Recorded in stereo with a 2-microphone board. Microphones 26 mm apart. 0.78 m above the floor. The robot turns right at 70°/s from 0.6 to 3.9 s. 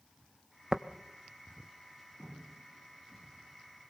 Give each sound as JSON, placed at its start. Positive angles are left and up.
{"t": 0.7, "sound": "tapping", "side_deg": -30, "distance_m": 0.9}